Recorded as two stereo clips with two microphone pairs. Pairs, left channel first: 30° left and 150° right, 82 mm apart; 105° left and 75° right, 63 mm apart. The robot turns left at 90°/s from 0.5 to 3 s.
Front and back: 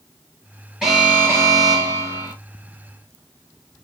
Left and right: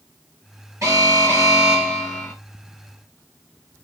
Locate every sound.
0.8 s an alarm: 70° right, 1.7 m; by 2.3 s 150° left, 1.7 m